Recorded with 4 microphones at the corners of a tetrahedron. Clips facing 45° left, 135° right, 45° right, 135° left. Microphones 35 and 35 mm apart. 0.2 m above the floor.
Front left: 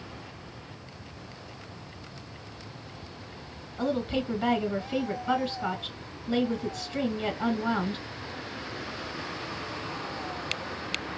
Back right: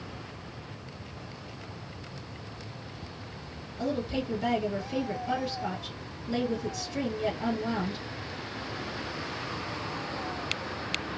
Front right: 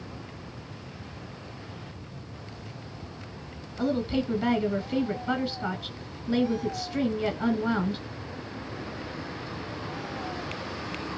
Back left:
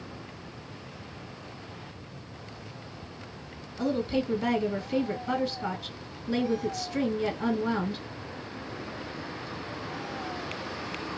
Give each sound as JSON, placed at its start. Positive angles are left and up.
{"t": 3.8, "sound": "a woman speaking", "azimuth_deg": 30, "distance_m": 1.5}